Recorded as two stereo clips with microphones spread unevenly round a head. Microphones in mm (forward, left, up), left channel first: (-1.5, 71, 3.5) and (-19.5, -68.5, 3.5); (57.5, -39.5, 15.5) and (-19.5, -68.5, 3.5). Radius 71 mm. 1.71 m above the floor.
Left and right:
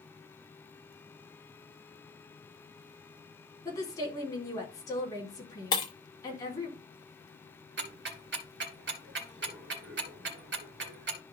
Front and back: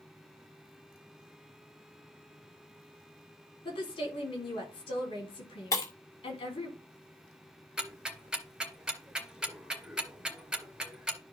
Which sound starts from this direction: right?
Ticking, at 7.8 s.